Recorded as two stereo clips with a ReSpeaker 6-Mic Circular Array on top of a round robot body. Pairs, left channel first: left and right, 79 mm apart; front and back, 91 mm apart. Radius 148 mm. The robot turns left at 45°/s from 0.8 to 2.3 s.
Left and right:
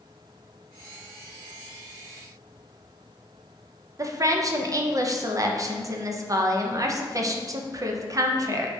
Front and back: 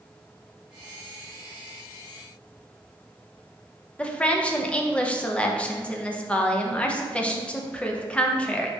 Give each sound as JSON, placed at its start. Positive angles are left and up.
{"t": 4.0, "sound": "a woman speaking", "azimuth_deg": -70, "distance_m": 0.6}